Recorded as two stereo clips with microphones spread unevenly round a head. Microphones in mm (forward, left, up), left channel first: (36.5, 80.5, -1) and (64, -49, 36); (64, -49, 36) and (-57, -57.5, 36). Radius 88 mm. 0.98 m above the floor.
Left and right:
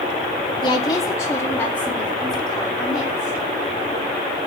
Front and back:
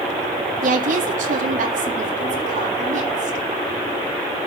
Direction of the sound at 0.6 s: 165° left.